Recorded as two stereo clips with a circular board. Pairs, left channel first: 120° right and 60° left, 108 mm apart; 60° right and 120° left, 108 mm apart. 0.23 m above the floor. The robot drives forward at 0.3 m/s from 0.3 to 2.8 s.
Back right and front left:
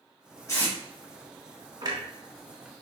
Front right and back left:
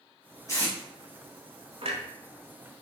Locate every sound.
0.5 s tape being pulled: 90° right, 1.5 m; by 0.8 s 95° right, 1.5 m
1.8 s a clunk: 105° left, 0.9 m; by 2.0 s 110° left, 0.9 m